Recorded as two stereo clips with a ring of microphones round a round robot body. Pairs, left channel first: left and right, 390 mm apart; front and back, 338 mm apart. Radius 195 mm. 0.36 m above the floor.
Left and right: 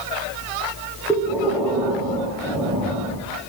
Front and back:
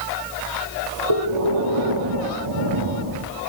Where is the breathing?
175° right, 9.5 m.